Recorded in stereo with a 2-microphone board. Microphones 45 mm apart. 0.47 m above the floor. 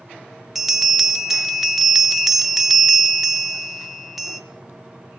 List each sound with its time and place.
0.6 s a bell: 5° right (ahead or behind), 0.6 m